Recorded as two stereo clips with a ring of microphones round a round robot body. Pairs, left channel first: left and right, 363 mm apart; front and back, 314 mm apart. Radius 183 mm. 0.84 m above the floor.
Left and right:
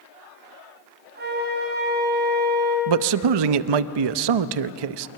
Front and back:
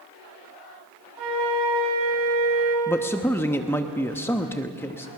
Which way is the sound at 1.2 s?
155° right.